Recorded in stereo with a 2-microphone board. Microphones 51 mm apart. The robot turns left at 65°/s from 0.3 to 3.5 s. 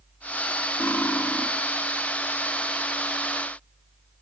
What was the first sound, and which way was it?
Cutlery clinking, 75° left.